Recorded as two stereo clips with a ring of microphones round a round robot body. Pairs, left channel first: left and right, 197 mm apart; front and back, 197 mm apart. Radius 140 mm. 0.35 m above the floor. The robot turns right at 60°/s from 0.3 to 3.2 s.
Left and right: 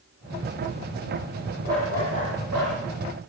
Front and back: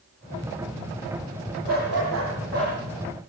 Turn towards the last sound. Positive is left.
turn(degrees=-80)